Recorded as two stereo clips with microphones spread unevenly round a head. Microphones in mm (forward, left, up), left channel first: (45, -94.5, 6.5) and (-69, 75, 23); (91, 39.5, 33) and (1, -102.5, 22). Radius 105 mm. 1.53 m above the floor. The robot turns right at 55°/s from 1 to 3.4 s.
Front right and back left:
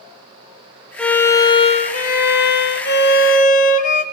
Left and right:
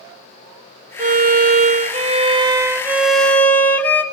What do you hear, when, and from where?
1.0 s a violin: 145° right, 0.9 m; by 4.0 s 15° right, 0.9 m